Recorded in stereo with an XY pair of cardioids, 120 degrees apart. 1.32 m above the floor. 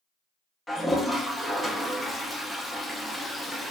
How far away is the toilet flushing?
About 0.7 m.